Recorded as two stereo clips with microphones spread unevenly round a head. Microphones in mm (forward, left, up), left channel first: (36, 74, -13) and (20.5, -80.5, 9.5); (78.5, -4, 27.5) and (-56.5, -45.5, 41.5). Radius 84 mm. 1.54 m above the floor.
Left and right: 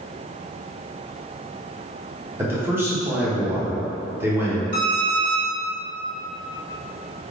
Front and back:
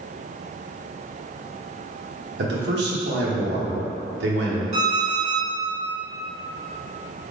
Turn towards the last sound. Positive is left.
turn(degrees=-125)